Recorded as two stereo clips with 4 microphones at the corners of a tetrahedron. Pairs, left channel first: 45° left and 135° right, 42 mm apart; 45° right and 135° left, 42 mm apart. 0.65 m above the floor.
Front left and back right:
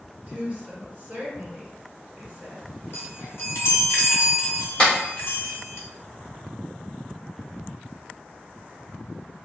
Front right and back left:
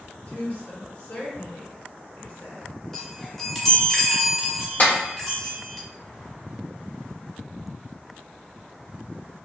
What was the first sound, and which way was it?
A woman speaking, 90° right.